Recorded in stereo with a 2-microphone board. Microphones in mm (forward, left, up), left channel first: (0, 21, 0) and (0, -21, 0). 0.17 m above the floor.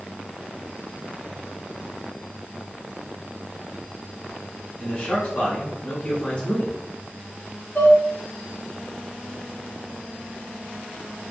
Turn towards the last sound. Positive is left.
turn(degrees=45)  # may be behind; listen again after turning